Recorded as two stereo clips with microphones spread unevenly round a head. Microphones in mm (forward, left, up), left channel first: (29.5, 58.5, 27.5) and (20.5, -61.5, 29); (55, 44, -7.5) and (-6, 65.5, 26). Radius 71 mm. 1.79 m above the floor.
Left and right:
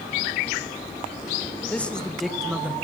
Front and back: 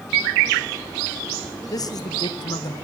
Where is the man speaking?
10° left, 2.5 m; by 2.7 s 20° right, 1.7 m.